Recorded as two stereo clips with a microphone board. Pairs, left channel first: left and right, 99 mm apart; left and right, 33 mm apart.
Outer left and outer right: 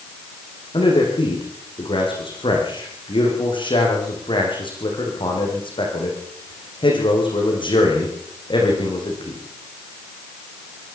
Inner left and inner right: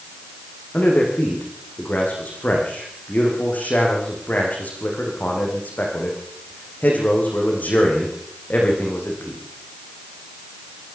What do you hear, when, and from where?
0.7 s a man speaking: 60° left (ahead or behind), 8 m